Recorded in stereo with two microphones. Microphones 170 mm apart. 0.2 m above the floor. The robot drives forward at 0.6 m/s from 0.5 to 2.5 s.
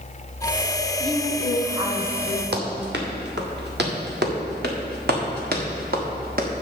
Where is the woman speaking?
30° right (ahead or behind), 1.7 m; by 2.4 s 20° right (ahead or behind), 2 m.